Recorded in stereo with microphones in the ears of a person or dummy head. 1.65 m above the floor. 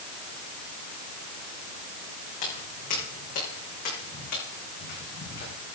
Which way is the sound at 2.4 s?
50° left (ahead or behind).